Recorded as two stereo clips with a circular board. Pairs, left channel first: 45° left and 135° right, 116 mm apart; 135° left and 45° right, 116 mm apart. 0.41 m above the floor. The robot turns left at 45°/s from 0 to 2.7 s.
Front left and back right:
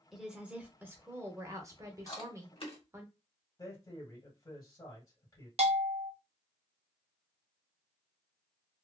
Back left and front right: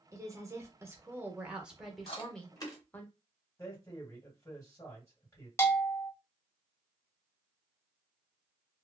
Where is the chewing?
105° left, 1.3 m; by 2.8 s 75° left, 1.3 m.